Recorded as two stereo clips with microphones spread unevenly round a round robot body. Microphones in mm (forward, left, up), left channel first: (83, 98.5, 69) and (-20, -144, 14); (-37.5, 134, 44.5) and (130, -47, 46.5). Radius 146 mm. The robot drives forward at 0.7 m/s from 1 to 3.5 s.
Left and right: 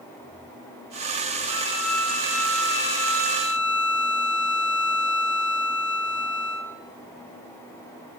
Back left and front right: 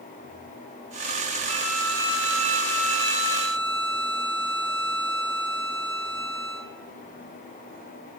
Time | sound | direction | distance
1.5 | a violin | 45° left | 6.5 m